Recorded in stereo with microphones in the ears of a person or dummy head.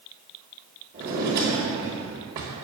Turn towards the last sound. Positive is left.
turn(degrees=-15)  # may be behind; listen again after turning